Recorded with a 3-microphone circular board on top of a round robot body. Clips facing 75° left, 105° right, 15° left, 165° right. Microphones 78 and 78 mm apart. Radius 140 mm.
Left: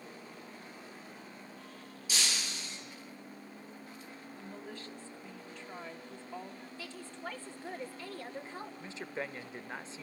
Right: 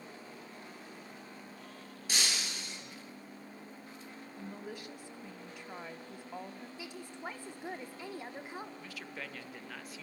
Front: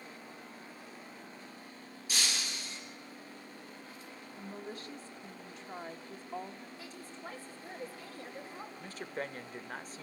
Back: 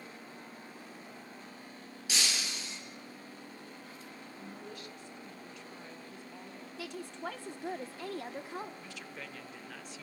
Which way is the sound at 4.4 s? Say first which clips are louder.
Right 2 dB, front 4 dB; 30° right.